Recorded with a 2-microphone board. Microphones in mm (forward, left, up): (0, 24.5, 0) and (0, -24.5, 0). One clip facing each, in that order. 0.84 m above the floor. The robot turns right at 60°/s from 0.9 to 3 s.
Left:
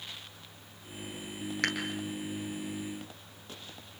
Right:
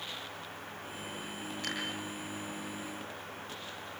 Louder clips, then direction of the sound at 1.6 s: Left 6 dB; 70° left (ahead or behind).